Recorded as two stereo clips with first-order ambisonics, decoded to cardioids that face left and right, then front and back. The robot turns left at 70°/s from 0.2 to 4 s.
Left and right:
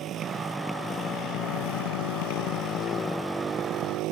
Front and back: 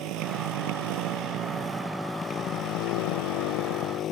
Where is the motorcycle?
145° right; by 4.1 s 50° right.